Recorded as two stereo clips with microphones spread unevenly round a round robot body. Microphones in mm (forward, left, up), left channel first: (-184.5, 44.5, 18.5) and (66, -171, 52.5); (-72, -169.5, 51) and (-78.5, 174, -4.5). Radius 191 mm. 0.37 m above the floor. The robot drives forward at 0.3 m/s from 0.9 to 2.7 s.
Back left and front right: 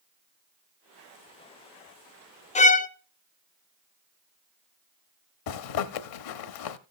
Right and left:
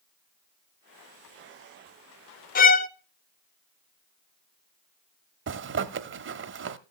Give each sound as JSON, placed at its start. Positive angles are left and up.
{"t": 2.5, "sound": "a violin", "azimuth_deg": -160, "distance_m": 0.6}
{"t": 5.5, "sound": "a zipper", "azimuth_deg": 145, "distance_m": 0.8}